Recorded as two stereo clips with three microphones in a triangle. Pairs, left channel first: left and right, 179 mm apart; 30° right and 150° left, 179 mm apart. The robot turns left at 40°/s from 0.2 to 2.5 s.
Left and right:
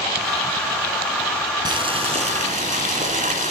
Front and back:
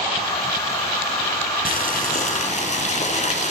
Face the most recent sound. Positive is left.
turn(degrees=-65)